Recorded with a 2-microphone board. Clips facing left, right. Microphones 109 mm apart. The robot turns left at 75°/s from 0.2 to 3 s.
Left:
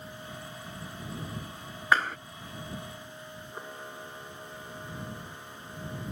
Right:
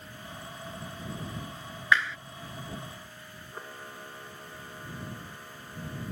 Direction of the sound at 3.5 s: 5° left (ahead or behind).